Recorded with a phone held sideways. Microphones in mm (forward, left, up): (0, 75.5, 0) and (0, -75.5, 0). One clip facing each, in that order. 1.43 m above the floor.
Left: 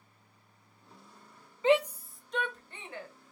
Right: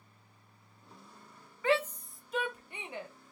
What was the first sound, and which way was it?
A shout, 20° left (ahead or behind).